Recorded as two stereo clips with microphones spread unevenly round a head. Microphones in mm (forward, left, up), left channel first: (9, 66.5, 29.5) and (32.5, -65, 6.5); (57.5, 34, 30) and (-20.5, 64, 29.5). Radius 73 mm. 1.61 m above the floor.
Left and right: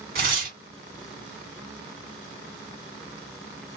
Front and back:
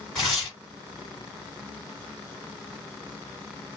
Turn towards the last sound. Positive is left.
turn(degrees=-105)